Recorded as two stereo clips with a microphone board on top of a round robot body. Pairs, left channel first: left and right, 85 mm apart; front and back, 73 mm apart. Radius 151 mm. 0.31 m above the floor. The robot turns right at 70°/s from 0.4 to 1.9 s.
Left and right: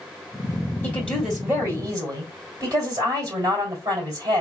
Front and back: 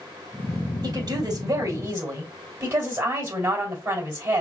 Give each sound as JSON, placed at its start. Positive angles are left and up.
{"t": 0.8, "sound": "a woman speaking", "azimuth_deg": 155, "distance_m": 2.5}